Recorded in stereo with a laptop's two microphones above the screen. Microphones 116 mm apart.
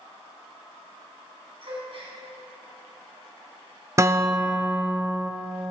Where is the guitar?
25° right (ahead or behind), 0.5 m.